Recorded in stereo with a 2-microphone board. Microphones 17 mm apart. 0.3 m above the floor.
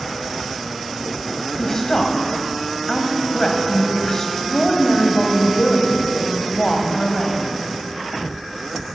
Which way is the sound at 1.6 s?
30° left (ahead or behind).